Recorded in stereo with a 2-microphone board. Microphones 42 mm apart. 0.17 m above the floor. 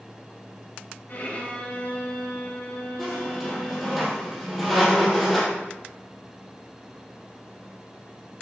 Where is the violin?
40° left (ahead or behind), 2.5 m.